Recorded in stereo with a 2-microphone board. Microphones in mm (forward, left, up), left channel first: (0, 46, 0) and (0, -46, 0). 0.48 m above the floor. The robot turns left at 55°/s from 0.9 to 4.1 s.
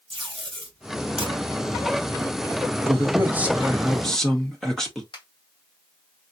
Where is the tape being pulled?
65° right (ahead or behind), 3 m.